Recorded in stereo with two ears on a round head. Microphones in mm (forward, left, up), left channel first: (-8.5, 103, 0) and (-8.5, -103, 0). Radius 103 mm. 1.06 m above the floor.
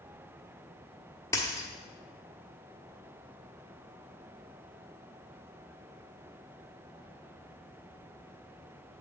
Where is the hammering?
No hammering in this recording.